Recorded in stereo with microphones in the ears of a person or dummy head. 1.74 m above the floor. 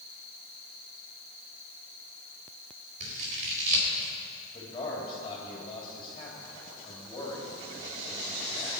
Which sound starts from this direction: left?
A man speaking, at 4.5 s.